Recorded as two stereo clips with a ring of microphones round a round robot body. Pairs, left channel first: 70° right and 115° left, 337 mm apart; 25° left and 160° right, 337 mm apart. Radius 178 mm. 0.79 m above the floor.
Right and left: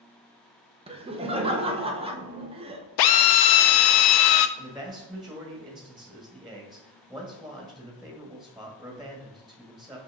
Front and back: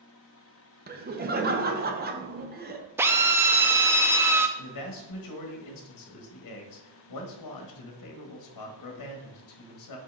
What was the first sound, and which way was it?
Laughter, 170° left.